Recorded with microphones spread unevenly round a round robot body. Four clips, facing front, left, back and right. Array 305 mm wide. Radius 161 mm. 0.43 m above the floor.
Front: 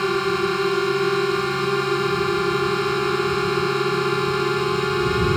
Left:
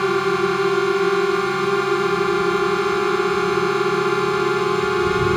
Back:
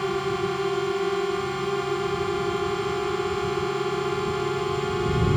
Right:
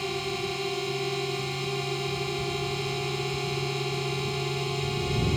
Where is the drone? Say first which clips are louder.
Left 13 dB, front 4 dB; 55° left.